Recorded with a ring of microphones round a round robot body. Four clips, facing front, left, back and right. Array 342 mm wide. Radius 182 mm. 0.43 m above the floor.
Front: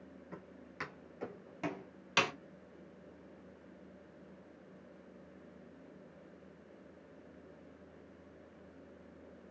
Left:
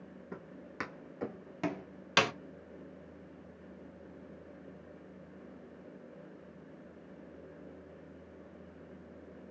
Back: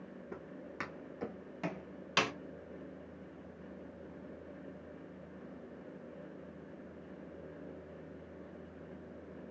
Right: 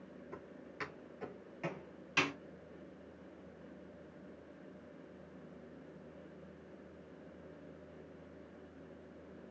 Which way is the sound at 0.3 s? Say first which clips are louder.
Left 7 dB, back 5 dB; 125° left.